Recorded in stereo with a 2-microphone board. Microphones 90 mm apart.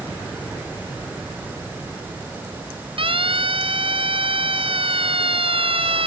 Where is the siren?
70° right (ahead or behind); by 6.1 s 80° right.